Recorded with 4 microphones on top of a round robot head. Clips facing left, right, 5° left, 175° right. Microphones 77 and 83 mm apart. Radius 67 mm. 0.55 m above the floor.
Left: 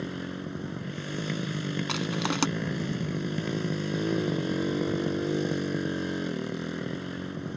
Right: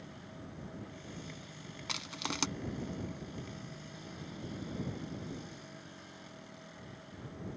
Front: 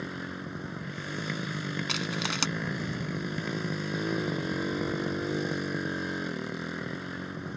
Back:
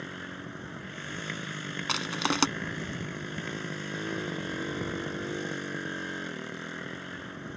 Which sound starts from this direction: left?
A motorcycle, at 0.0 s.